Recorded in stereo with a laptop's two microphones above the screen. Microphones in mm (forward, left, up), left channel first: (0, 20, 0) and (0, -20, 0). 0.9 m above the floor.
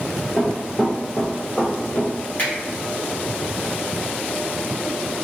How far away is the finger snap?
About 1.1 m.